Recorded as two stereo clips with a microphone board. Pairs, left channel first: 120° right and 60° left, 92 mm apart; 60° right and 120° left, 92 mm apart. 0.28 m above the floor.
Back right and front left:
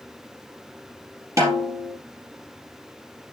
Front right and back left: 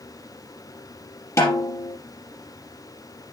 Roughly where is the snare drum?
Ahead.